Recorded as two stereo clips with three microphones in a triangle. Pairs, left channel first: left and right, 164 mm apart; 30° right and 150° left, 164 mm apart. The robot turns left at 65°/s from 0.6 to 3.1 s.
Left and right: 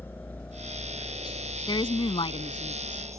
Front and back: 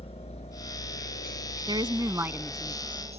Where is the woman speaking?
125° left; by 3.2 s 35° left.